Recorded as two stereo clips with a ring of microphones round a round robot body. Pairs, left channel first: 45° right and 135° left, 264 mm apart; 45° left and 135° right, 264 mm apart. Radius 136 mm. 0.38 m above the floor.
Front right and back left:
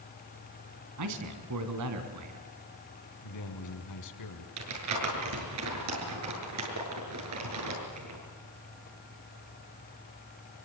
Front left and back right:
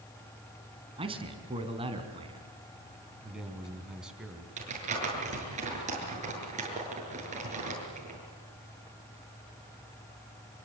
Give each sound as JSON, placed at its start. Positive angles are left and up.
{"t": 1.0, "sound": "a man speaking", "azimuth_deg": 155, "distance_m": 3.0}
{"t": 3.2, "sound": "a man speaking", "azimuth_deg": -50, "distance_m": 4.0}
{"t": 4.6, "sound": "crumpling", "azimuth_deg": 160, "distance_m": 7.5}